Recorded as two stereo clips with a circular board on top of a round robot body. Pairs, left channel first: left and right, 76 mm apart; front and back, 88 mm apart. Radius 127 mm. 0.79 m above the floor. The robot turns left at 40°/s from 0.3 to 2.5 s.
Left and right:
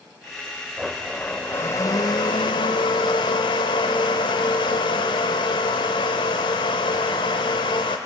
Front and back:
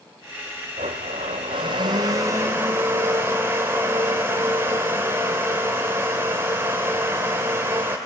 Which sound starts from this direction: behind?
A blender, at 0.8 s.